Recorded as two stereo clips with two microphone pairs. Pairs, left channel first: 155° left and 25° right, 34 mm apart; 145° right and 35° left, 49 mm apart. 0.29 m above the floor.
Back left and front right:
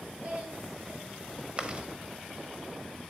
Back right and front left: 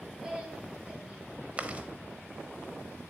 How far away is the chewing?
About 0.6 m.